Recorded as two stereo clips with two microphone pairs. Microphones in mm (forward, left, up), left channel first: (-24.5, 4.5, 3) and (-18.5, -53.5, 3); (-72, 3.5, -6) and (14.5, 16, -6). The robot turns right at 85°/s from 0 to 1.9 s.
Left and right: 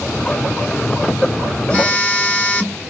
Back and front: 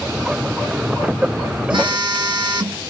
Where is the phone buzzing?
25° left, 1.9 m; by 2.8 s 40° left, 1.9 m.